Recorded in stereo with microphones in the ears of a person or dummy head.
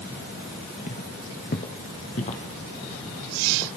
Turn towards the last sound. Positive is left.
turn(degrees=35)  # may be behind; listen again after turning